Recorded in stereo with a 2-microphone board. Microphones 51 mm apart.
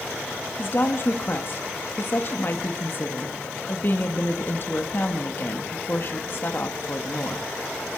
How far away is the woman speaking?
About 1.3 m.